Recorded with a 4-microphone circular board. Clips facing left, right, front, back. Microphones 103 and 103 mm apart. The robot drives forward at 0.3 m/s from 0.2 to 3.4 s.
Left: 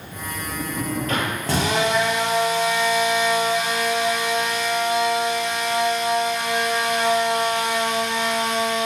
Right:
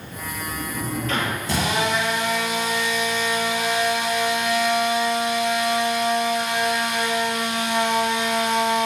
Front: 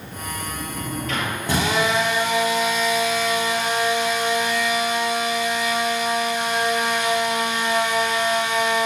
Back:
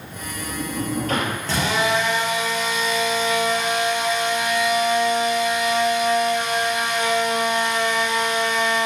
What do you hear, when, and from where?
0.1 s a sliding door: 130° left, 2.5 m; by 1.4 s 135° left, 2.5 m
1.5 s a drill: 75° left, 5 m; by 8.9 s 80° left, 5 m